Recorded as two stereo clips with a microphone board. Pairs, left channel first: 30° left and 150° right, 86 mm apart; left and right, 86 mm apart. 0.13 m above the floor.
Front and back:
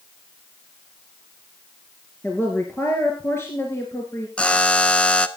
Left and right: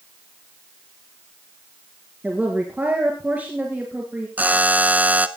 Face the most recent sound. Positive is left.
turn(degrees=-35)